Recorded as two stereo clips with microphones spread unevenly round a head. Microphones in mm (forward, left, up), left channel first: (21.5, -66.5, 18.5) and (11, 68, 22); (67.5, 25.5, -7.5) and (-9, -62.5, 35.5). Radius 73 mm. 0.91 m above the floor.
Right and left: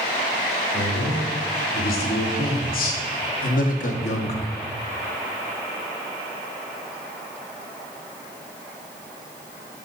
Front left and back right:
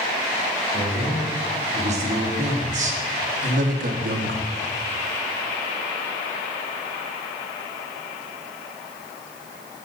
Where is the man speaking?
100° right, 2.5 m; by 4.5 s 130° right, 0.9 m.